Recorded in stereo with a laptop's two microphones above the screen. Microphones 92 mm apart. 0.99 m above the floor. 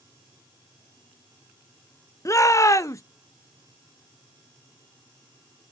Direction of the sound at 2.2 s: 35° left (ahead or behind).